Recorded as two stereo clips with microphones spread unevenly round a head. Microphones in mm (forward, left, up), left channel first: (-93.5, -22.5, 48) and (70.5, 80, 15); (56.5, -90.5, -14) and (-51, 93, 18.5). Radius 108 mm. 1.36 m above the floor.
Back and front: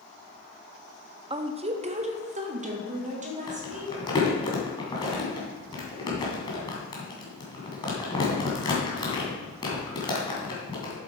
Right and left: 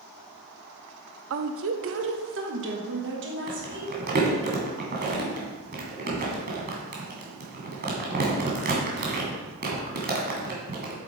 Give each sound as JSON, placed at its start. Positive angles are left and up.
{"t": 1.3, "sound": "a woman speaking", "azimuth_deg": 95, "distance_m": 0.6}
{"t": 3.5, "sound": "crumpling", "azimuth_deg": 155, "distance_m": 2.5}